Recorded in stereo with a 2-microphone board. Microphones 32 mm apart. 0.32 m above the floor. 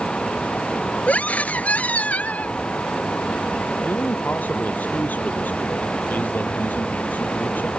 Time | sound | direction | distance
1.1 | a scream | 50° left (ahead or behind) | ?
3.8 | a man speaking | 70° left (ahead or behind) | ?